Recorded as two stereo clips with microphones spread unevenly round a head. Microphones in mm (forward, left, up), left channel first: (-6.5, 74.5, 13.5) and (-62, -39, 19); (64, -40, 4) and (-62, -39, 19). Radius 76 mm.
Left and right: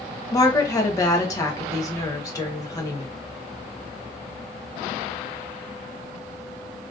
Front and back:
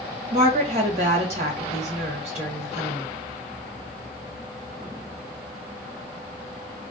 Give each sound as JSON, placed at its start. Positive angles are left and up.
{"t": 0.3, "sound": "a woman speaking", "azimuth_deg": 125, "distance_m": 1.3}